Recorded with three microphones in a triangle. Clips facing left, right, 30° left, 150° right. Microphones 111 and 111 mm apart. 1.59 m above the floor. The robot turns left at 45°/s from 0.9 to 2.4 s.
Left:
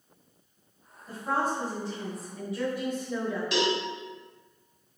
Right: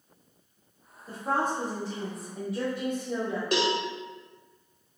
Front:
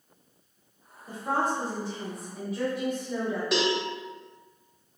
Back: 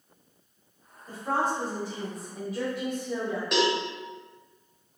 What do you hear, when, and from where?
1.1 s a woman speaking: 40° right, 1.1 m; by 3.4 s 100° right, 1.1 m
3.5 s a cowbell: 60° right, 0.9 m